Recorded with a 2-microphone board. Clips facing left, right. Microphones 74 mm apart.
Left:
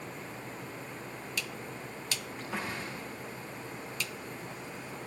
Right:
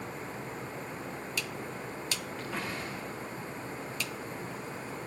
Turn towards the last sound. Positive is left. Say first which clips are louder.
# left 1 dB
turn(degrees=20)  # may be behind; listen again after turning